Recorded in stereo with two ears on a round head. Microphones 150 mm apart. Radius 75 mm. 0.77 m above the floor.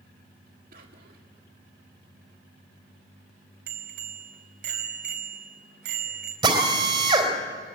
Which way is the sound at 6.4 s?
25° right (ahead or behind).